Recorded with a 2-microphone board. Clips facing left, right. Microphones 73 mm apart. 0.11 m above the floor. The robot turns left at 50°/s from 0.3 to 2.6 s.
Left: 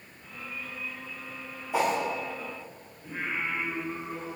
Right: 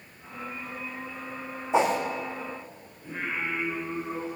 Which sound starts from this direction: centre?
Singing, at 3.0 s.